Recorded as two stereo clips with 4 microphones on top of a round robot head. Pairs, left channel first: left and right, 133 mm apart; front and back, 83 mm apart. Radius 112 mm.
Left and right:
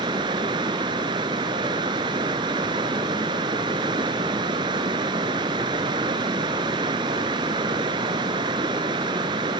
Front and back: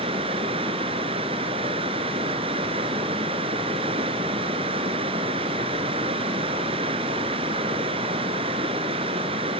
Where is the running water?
155° right, 1.0 m.